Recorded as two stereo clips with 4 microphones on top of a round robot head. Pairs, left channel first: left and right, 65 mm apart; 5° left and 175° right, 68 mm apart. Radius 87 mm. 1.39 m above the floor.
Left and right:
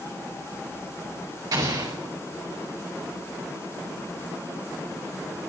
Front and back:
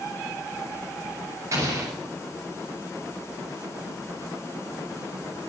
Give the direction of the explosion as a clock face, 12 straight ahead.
4 o'clock.